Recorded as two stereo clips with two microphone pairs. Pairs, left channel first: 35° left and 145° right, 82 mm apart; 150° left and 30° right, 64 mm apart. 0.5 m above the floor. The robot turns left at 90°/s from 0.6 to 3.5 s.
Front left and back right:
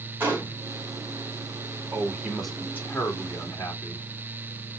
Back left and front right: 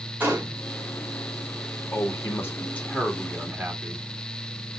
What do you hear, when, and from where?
0.2 s a gunshot: 85° right, 2 m
1.9 s a man speaking: 170° left, 1.7 m; by 4.1 s 30° left, 1.7 m